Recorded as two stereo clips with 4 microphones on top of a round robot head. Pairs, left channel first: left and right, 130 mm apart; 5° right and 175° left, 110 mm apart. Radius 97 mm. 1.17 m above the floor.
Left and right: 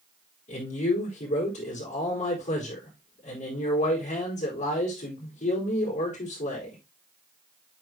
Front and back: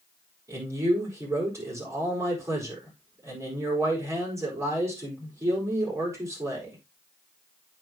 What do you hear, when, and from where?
0.5 s a man speaking: 115° left, 4 m